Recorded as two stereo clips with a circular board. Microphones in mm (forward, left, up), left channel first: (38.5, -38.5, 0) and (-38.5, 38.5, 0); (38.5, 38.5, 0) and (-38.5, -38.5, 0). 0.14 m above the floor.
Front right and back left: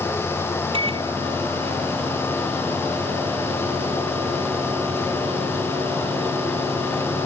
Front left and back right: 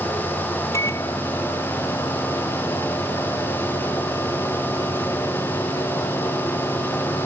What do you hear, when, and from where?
0.7 s a microwave: 105° left